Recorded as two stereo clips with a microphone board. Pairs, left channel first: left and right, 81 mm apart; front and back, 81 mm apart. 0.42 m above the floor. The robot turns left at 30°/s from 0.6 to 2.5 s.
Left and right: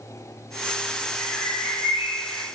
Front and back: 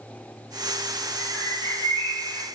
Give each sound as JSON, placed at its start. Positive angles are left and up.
{"t": 1.2, "sound": "a bird", "azimuth_deg": 15, "distance_m": 3.5}